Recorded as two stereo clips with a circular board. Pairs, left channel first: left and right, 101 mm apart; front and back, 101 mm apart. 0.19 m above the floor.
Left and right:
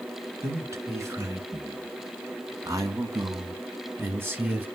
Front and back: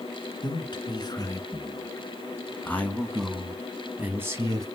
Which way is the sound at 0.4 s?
35° right.